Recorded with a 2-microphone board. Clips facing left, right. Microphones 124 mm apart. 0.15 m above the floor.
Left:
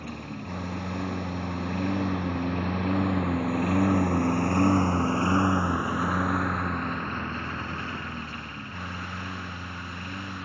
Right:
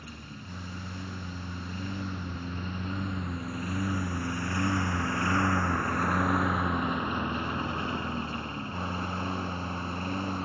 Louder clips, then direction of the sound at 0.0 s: Left 8 dB; 70° left (ahead or behind).